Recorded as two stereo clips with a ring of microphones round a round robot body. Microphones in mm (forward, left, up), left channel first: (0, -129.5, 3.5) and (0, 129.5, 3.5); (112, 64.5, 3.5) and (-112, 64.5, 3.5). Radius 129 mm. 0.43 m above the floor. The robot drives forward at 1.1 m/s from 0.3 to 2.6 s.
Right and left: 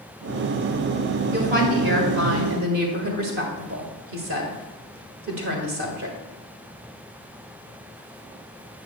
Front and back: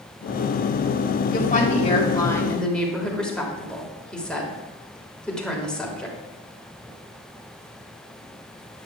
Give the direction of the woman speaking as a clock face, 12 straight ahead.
11 o'clock.